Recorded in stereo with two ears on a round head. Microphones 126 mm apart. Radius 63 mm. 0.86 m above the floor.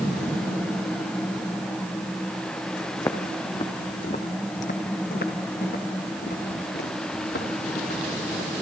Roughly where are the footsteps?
Centre.